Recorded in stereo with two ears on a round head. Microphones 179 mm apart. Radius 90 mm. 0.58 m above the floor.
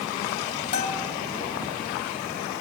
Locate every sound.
0.7 s a bell: 35° left (ahead or behind), 1.7 m